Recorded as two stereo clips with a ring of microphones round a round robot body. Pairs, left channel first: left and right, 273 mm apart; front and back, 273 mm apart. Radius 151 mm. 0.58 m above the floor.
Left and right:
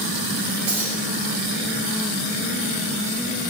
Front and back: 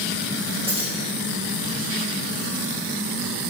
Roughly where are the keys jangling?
Right.